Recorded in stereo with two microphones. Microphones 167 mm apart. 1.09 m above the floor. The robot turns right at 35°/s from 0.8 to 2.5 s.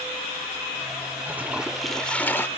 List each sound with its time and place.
1.3 s a toilet flushing: 20° right; by 2.5 s 20° left